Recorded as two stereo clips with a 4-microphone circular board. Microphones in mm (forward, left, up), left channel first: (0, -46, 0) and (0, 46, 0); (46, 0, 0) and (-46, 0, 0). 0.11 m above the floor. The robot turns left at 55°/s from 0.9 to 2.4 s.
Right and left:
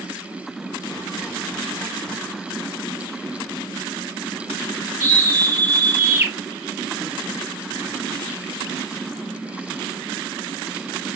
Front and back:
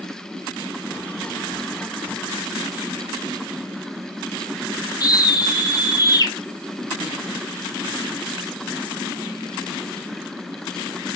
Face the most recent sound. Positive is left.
turn(degrees=25)